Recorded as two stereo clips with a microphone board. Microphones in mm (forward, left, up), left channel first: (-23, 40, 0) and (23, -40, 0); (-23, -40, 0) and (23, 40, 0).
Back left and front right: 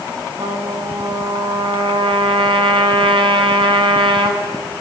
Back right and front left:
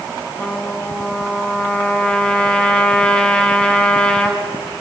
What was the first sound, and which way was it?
A trumpet, 40° right.